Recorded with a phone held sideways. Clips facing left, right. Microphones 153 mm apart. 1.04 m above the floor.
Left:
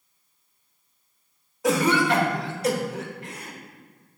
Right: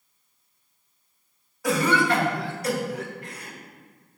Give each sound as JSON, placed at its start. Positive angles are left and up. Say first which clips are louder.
{"t": 1.6, "sound": "a cough", "louder": "left 1 dB", "side_deg": 25, "distance_m": 1.4}